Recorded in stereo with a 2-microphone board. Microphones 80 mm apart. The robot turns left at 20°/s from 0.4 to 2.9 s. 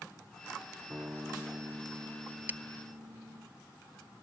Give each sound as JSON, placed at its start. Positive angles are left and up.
{"t": 0.9, "sound": "a guitar", "azimuth_deg": -20}
{"t": 2.5, "sound": "breaking glass", "side_deg": -20}